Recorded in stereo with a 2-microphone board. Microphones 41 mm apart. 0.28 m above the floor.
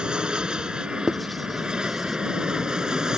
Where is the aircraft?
20° right (ahead or behind); by 3.2 s 15° right (ahead or behind).